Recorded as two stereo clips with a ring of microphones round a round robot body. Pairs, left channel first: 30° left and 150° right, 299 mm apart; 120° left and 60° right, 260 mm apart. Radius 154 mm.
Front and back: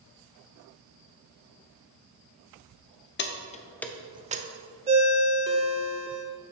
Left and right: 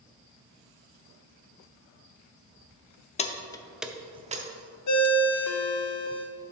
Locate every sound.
3.2 s keys jangling: 65° left, 0.6 m; by 4.5 s 105° right, 0.6 m
4.9 s a ringtone: 140° left, 0.7 m